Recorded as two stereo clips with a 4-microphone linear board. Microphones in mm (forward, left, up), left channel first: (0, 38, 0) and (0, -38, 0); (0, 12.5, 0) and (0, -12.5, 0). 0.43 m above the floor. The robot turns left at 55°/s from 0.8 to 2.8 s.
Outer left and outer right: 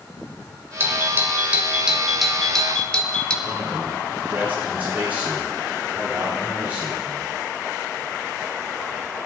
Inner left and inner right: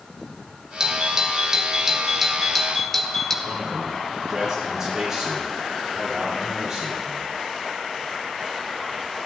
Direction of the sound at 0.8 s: 30° right (ahead or behind).